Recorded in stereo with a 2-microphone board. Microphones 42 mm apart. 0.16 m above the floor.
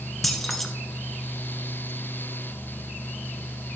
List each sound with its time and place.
0.2 s keys jangling: centre (ahead or behind), 1.1 m